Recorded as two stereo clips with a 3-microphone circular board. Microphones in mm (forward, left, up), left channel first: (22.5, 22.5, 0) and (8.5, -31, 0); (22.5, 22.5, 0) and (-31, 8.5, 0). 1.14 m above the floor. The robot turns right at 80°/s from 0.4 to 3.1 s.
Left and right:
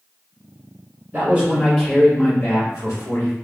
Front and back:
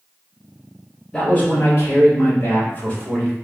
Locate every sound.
1.1 s a man speaking: 65° right, 1.9 m; by 3.3 s 95° left, 1.9 m